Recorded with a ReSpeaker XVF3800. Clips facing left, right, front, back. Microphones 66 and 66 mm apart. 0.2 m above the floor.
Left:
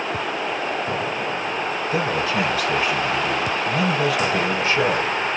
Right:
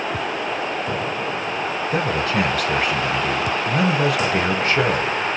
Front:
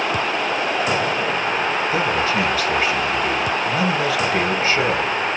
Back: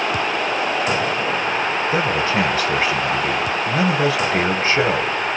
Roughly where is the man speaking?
Behind right.